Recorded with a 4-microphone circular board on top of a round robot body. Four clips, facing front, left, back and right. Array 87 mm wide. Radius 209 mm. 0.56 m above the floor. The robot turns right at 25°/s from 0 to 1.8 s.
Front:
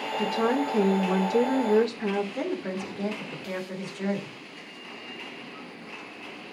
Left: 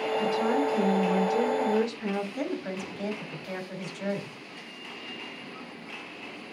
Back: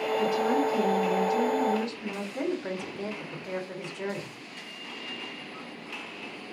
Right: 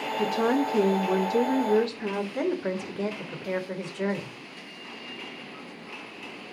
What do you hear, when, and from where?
0.2 s a woman speaking: 75° right, 2 m; by 2.2 s 35° right, 2 m
2.4 s a woman speaking: 90° right, 3.5 m